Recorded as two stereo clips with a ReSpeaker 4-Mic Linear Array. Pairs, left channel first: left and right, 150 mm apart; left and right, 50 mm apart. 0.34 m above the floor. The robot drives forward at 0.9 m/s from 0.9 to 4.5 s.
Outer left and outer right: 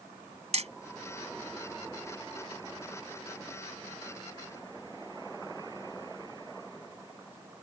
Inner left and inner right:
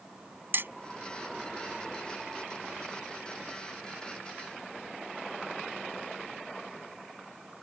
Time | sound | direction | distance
0.5 | hammering | 50° right (ahead or behind) | ?